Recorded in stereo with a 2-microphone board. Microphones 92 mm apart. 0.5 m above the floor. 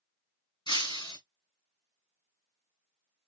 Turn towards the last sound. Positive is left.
turn(degrees=60)  # may be behind; listen again after turning